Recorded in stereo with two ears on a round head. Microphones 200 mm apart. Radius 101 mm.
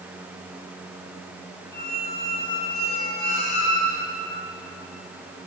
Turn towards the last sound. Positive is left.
turn(degrees=45)  # may be behind; listen again after turning